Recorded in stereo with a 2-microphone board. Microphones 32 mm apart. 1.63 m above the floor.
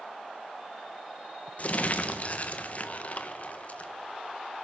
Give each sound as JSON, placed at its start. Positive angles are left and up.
{"t": 1.6, "sound": "crumpling", "side_deg": 45, "distance_m": 1.2}